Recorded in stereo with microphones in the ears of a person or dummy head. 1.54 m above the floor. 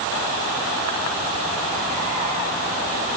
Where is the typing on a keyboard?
I don't hear typing on a keyboard.